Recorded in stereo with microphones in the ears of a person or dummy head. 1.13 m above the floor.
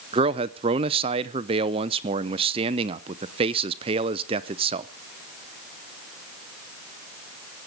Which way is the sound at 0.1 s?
20° right (ahead or behind).